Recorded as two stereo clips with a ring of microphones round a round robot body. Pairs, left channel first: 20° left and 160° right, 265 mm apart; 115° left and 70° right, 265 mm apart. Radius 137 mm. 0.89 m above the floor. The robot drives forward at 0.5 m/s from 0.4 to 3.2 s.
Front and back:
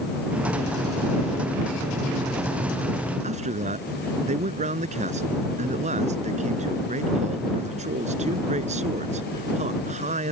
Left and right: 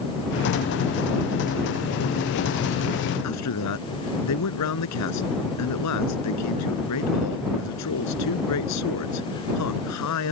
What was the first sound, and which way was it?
A man speaking, 140° left.